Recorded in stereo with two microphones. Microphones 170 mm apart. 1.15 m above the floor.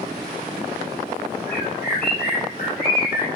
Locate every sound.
1.5 s a bird: 70° left (ahead or behind), 8 m